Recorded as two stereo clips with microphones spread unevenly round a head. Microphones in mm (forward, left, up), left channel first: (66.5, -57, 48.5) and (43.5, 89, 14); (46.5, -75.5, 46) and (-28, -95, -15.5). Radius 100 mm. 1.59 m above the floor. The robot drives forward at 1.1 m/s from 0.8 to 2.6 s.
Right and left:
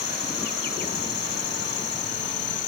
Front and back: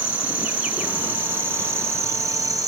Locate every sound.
0.0 s an insect: 80° right; by 2.7 s 110° right